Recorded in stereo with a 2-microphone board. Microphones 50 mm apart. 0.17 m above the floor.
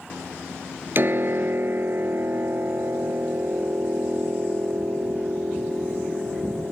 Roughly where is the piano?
Right.